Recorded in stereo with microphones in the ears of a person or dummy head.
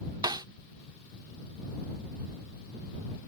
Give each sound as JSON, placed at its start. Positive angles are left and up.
{"t": 0.2, "sound": "a snare drum", "side_deg": -20}